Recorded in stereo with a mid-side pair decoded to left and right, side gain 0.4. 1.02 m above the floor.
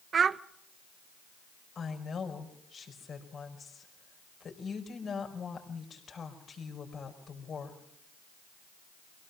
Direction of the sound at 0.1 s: 50° right.